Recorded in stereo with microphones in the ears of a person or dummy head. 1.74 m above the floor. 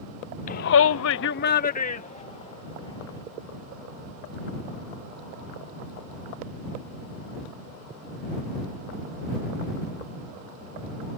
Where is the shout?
40° left (ahead or behind); by 3.2 s 30° left (ahead or behind).